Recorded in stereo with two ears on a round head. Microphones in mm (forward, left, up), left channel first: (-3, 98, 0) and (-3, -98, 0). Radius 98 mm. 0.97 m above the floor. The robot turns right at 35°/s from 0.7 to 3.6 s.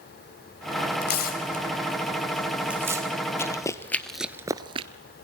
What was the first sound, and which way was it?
Tearing paper, 55° left (ahead or behind).